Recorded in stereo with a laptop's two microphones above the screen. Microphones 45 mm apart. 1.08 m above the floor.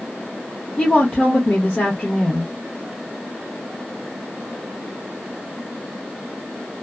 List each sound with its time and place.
0.8 s a woman speaking: 25° left (ahead or behind), 0.6 m